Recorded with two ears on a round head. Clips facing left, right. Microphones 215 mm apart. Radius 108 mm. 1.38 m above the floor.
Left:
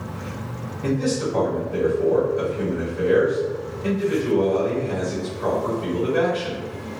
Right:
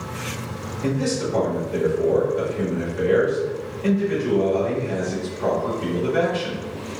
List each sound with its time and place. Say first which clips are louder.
0.8 s a man speaking: left 1 dB; 45° right (ahead or behind), 1.8 m